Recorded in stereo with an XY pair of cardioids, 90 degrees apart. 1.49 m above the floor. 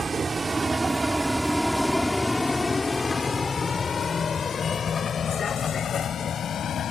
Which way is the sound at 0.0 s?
40° right.